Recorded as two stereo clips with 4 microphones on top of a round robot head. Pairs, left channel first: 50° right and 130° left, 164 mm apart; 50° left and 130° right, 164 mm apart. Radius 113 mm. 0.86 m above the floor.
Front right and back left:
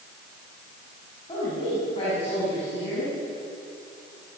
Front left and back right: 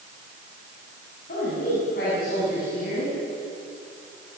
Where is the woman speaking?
15° left, 9 m; by 3.2 s 10° left, 10.5 m.